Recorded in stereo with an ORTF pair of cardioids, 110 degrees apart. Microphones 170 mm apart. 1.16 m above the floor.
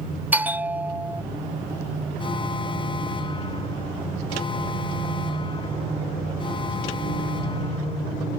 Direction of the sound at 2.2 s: 30° left.